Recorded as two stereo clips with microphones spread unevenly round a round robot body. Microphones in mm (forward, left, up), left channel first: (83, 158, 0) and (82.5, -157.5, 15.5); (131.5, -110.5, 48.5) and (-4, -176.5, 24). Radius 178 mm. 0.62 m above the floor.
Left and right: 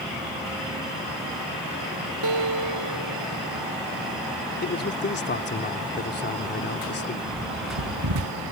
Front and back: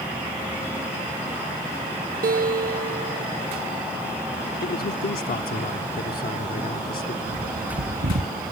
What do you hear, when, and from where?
2.2 s a guitar: 130° right
4.6 s a man speaking: 40° left
7.3 s a bird: 130° right